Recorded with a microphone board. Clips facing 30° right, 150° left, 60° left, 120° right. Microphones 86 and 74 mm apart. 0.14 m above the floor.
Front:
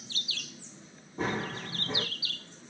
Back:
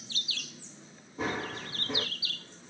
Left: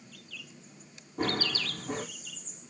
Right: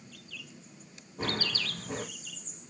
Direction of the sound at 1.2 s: 20° left.